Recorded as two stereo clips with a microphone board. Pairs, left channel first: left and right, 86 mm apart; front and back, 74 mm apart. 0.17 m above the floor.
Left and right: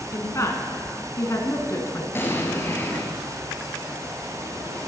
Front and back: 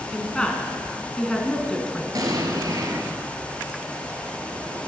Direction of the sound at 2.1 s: 150° left.